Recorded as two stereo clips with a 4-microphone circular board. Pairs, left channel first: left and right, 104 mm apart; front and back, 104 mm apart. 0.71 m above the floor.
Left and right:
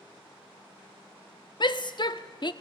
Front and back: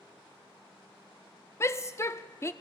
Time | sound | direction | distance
1.6 | a shout | 60° left | 1.1 m